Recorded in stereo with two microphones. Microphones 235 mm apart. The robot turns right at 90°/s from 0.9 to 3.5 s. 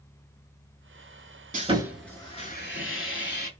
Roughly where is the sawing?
Ahead right.